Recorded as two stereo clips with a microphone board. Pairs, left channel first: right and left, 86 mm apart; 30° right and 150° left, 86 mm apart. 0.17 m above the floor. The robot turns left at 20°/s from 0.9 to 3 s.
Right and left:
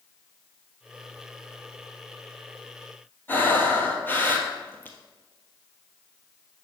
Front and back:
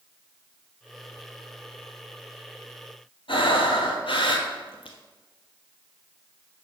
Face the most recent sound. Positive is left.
turn(degrees=-25)